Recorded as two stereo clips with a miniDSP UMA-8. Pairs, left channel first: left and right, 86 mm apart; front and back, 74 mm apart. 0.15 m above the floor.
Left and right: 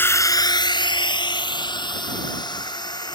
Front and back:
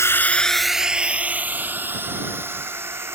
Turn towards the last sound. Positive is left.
turn(degrees=125)